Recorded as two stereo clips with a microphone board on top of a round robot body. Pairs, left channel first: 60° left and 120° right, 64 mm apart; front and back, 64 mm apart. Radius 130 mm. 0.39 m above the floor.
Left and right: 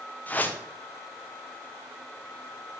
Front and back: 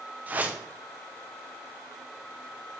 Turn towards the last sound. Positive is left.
turn(degrees=120)